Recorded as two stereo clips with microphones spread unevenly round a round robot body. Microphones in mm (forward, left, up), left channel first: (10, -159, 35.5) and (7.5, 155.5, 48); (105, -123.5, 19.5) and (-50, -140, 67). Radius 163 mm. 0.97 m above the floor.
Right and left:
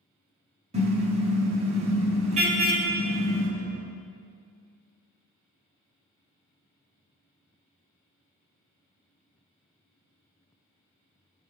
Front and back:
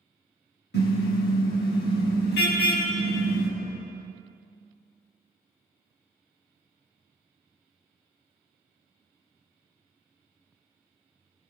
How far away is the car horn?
About 4 m.